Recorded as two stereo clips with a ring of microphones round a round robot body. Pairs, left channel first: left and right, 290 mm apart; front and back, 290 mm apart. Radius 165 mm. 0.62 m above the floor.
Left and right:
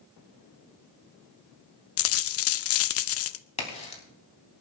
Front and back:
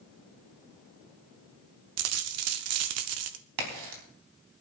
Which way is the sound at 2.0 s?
135° left.